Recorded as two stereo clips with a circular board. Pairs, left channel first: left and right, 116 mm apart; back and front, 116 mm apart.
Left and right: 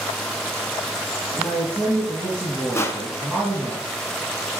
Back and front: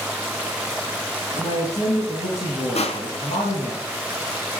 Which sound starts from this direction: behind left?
Crushing, at 2.8 s.